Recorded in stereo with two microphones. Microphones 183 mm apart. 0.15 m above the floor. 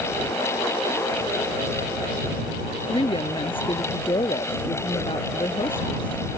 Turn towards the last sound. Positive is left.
turn(degrees=30)  # may be behind; listen again after turning